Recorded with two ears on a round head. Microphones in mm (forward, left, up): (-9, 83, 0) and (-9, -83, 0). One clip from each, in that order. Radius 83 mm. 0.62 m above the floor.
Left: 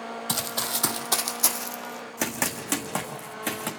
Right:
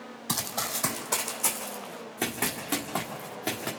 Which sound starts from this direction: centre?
Running footsteps, at 0.3 s.